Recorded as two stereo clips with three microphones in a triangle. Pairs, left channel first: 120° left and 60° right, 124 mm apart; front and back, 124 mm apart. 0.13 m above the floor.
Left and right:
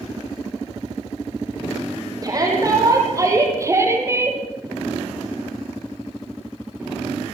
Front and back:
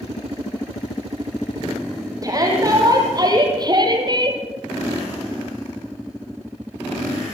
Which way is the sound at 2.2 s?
120° right.